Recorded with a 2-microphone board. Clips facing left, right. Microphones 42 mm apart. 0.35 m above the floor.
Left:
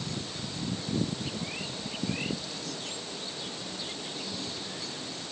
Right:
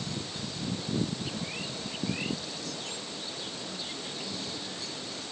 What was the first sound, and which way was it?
Only background noise.